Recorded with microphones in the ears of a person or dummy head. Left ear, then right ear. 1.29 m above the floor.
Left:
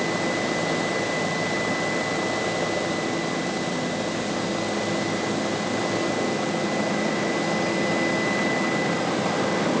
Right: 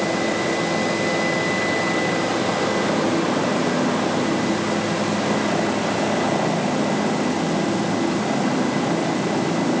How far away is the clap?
No clap in this recording.